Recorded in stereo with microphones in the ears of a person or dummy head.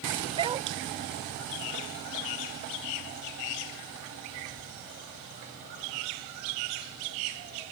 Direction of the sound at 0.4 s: 25° right (ahead or behind).